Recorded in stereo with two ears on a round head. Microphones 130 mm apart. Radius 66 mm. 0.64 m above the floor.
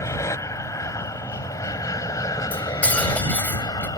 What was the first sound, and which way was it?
An aircraft, 20° left (ahead or behind).